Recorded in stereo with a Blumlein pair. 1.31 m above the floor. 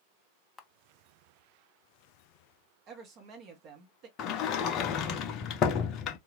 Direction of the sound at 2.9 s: 35° right.